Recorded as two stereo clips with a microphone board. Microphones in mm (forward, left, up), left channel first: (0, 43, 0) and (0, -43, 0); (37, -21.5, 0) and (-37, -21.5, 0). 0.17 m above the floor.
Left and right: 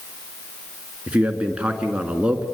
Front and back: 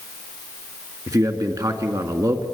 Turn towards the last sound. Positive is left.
turn(degrees=-165)